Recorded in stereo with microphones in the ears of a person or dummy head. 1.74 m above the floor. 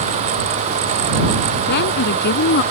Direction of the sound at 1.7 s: 60° left (ahead or behind).